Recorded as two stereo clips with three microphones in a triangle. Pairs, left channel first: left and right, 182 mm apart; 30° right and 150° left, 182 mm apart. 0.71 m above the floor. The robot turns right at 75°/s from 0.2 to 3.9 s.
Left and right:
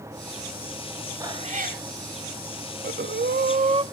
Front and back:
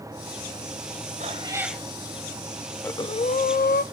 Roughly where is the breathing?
Right.